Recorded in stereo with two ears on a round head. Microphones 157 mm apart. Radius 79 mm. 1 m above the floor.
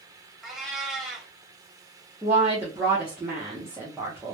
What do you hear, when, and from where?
0.4 s a cat meowing: centre (ahead or behind), 0.8 m
2.2 s a woman speaking: 10° right (ahead or behind), 0.8 m